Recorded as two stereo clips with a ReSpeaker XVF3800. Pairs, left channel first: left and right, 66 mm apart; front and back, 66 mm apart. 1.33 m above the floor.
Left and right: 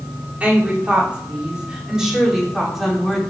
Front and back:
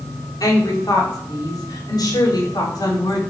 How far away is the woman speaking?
About 3.5 m.